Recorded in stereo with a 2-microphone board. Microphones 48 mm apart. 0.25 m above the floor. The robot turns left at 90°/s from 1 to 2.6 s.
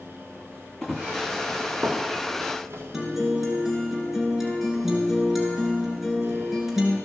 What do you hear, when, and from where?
0.8 s running footsteps: 5° left (ahead or behind), 1.1 m; by 2.8 s 80° right, 2.5 m
2.9 s a guitar: 5° right (ahead or behind), 2 m